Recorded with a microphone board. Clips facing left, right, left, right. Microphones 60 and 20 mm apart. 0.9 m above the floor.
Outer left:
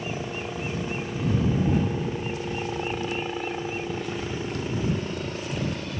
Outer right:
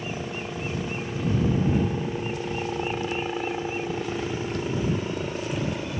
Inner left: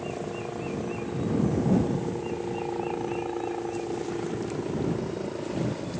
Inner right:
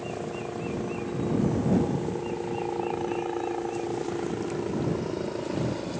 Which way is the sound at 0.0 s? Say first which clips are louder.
Outer left 1 dB, even; 5° left (ahead or behind).